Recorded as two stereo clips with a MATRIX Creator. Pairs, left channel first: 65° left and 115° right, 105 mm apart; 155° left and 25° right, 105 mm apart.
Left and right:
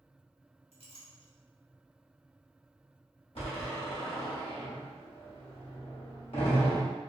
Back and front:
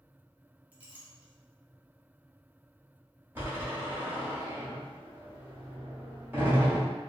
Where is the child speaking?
I don't hear a child speaking.